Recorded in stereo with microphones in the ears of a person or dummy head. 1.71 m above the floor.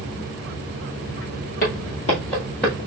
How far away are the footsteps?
About 2 m.